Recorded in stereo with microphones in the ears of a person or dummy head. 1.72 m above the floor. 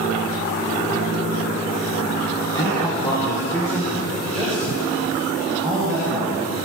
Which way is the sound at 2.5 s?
25° left (ahead or behind).